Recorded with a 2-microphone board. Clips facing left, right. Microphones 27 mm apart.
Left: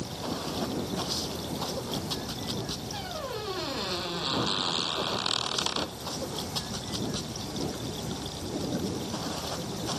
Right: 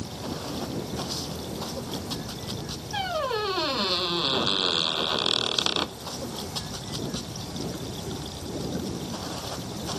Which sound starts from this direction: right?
A squeak, at 2.9 s.